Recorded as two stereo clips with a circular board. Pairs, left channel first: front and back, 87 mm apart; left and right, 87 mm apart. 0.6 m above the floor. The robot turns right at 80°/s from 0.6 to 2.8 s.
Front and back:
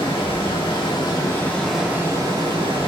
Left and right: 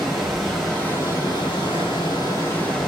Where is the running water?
Straight ahead, 1.6 m; by 2.9 s 175° left, 1.6 m.